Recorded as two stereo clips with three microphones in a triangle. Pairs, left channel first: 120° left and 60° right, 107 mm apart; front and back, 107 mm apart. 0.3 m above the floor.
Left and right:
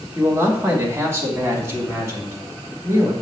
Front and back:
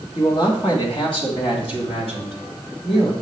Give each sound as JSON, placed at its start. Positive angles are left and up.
{"t": 0.1, "sound": "a man speaking", "azimuth_deg": 0, "distance_m": 2.0}